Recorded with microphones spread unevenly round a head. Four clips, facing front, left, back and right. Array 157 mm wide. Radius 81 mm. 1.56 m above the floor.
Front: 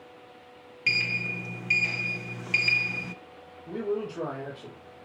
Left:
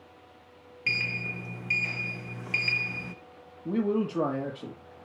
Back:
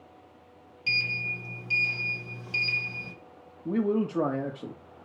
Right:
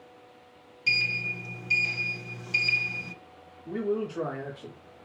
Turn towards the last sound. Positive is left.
turn(degrees=140)